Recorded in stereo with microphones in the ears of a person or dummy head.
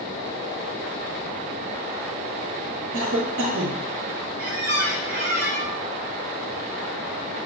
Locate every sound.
2.9 s a cough: 65° right (ahead or behind), 0.6 m
4.4 s a squeak: 55° right (ahead or behind), 0.6 m